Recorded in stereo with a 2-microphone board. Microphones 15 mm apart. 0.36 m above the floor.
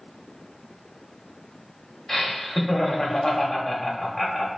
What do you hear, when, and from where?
2.1 s laughter: 35° left (ahead or behind), 1.3 m